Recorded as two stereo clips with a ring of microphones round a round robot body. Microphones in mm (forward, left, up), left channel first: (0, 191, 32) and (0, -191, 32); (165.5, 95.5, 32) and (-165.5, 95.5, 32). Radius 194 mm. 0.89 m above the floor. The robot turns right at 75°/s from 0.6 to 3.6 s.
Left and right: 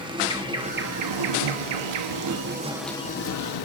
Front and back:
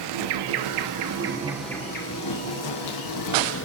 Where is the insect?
170° right, 1.0 m; by 3.6 s 55° left, 1.0 m.